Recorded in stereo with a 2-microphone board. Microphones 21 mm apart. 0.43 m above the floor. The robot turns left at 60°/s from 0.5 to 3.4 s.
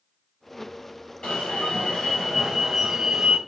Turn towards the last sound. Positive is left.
turn(degrees=-35)